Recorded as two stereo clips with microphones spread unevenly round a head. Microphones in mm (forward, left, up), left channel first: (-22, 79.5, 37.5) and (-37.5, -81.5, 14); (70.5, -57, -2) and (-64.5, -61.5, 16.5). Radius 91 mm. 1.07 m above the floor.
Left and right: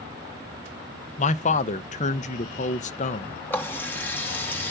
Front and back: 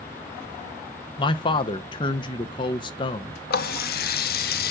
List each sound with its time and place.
1.2 s a man speaking: 40° left, 0.6 m
3.5 s a running tap: 5° left, 0.7 m